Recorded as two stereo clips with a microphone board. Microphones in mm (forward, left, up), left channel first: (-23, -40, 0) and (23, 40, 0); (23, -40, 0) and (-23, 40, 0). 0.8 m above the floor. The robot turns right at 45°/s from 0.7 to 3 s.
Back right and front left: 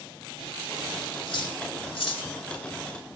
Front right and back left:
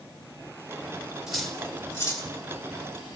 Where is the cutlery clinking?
155° right, 2.0 m; by 2.3 s 105° right, 2.0 m.